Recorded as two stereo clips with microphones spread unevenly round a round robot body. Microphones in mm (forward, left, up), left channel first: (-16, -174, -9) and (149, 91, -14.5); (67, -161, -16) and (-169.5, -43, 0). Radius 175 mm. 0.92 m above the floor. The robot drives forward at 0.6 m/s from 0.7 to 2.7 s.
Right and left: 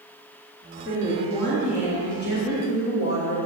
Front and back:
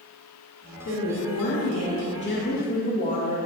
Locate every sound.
0.8 s a woman speaking: 45° right, 2 m; by 3.5 s 80° right, 1.5 m